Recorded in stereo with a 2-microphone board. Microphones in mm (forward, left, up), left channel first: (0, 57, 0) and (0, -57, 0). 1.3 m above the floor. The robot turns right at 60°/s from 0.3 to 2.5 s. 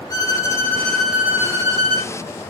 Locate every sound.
0.1 s a violin: 135° left, 1.4 m; by 2.1 s 115° right, 1.4 m